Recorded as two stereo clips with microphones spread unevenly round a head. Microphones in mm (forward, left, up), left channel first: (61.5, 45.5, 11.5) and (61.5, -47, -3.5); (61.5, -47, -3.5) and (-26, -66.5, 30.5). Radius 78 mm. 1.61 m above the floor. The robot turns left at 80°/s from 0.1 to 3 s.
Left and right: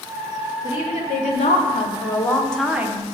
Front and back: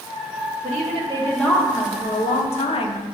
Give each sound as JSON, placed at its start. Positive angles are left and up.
{"t": 0.6, "sound": "a woman speaking", "azimuth_deg": 160, "distance_m": 0.8}